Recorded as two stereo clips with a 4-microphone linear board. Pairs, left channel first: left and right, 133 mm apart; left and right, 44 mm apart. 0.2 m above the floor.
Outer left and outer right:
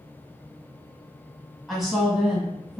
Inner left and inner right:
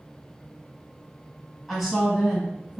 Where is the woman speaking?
5° right (ahead or behind), 1.3 m.